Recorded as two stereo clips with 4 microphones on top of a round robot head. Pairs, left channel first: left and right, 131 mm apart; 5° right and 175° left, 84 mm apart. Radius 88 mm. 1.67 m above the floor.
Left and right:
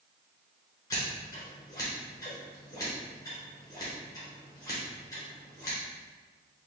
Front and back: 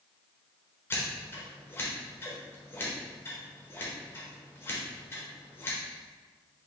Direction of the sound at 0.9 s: 35° left.